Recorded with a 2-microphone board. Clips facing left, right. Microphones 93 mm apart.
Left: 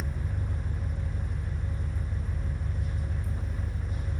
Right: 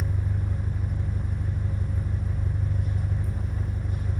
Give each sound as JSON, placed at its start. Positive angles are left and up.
{"t": 0.0, "sound": "an engine running", "side_deg": -50, "distance_m": 1.1}